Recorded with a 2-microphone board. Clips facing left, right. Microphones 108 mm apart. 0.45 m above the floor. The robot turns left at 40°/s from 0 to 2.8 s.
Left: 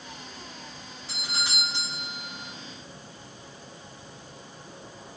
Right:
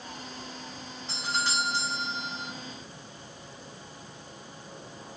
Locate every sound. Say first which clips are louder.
1.1 s a doorbell: right 4 dB; 5° left (ahead or behind), 1.6 m; by 2.5 s 25° left (ahead or behind), 1.6 m